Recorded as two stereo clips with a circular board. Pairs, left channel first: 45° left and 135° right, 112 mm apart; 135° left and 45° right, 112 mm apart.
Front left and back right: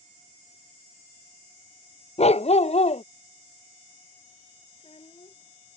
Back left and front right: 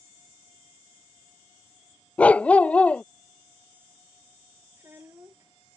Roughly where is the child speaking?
Ahead.